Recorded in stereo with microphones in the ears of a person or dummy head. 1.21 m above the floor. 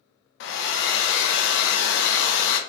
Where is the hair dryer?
65° left (ahead or behind), 0.6 m.